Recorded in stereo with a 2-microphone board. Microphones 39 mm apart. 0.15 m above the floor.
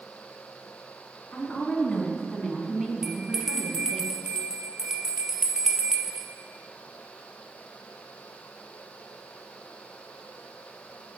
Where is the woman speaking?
25° left (ahead or behind), 1.8 m; by 4.0 s 50° right (ahead or behind), 2.5 m.